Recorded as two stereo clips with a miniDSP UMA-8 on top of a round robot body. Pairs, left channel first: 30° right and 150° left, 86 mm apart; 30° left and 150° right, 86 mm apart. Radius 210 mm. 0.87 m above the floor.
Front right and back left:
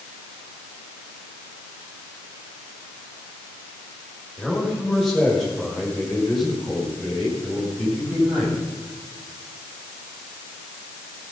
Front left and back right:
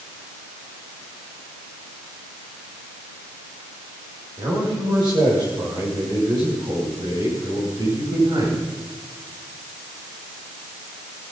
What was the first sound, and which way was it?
A man speaking, 120° right.